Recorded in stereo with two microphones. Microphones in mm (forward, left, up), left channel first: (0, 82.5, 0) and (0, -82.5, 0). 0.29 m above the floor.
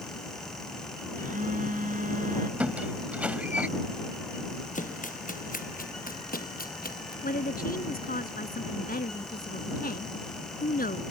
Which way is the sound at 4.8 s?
50° left (ahead or behind).